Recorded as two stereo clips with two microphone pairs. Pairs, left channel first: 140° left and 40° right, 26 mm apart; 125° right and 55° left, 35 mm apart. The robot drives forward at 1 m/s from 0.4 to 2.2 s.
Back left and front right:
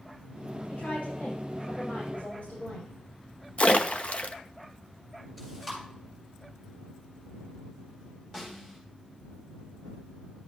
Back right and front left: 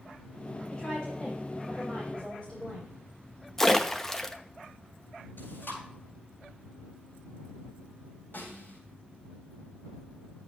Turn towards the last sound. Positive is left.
turn(degrees=-150)